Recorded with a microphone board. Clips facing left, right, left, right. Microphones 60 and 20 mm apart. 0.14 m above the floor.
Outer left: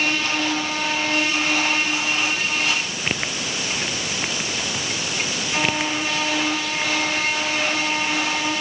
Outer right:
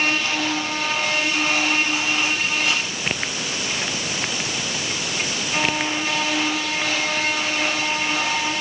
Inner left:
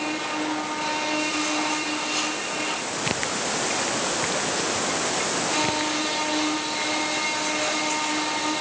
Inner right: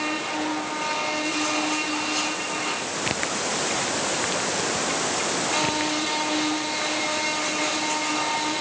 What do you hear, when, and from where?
Only background noise.